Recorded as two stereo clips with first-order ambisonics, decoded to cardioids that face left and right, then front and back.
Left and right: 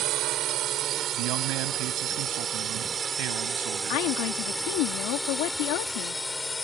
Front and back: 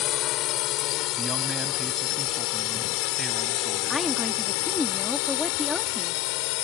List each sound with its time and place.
0.0 s a drone: 45° right; by 6.7 s 10° left
1.1 s a man speaking: 105° right
3.9 s a woman speaking: 85° left